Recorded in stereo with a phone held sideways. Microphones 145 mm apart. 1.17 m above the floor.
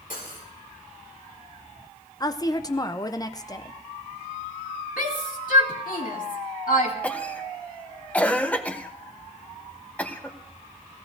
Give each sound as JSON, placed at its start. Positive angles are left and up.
{"t": 0.1, "sound": "cutlery clinking", "side_deg": 70, "distance_m": 2.5}
{"t": 2.2, "sound": "a woman speaking", "side_deg": 25, "distance_m": 0.6}
{"t": 5.0, "sound": "a shout", "side_deg": 75, "distance_m": 2.0}
{"t": 7.0, "sound": "a cough", "side_deg": 10, "distance_m": 0.9}